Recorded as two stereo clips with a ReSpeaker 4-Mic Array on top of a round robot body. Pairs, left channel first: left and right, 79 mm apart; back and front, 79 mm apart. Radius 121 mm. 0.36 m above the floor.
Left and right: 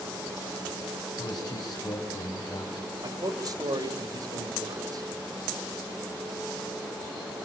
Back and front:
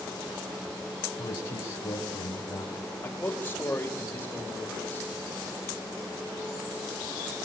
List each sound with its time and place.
1.2 s a man speaking: 125° left, 3.5 m
3.0 s a man speaking: 115° right, 3 m